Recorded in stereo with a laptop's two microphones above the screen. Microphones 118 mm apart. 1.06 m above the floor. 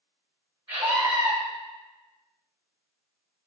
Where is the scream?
35° right (ahead or behind), 1.0 m.